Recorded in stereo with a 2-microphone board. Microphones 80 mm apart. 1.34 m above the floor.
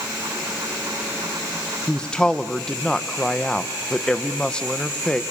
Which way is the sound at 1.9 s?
10° left (ahead or behind).